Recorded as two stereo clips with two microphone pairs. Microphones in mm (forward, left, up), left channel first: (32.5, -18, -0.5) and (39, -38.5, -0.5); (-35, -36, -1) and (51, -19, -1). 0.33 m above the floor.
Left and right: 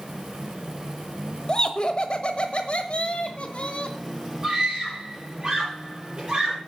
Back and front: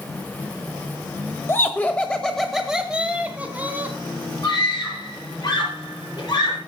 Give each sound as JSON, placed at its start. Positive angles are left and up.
{"t": 1.5, "sound": "laughter", "azimuth_deg": 145, "distance_m": 1.2}
{"t": 4.4, "sound": "a scream", "azimuth_deg": -130, "distance_m": 6.5}